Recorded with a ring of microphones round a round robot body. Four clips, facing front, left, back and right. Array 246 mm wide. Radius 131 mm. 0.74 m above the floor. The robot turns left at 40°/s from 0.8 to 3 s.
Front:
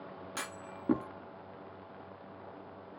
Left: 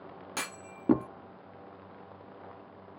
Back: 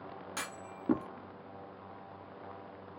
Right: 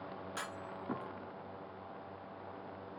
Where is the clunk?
90° left; by 1.1 s 80° left.